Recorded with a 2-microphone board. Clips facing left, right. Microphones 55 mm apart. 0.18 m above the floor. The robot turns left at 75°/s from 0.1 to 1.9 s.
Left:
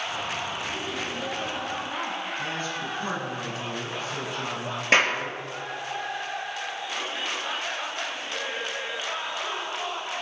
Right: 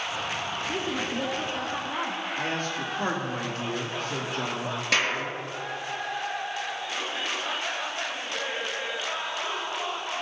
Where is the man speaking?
65° right (ahead or behind), 3.5 m.